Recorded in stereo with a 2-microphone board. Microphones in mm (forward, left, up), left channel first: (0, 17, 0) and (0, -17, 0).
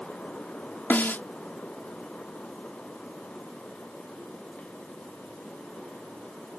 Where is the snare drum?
70° left (ahead or behind).